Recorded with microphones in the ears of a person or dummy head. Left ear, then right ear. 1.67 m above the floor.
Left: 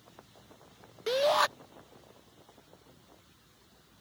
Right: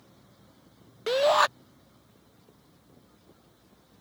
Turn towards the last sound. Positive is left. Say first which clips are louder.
# right 4 dB
turn(degrees=-25)  # may be behind; listen again after turning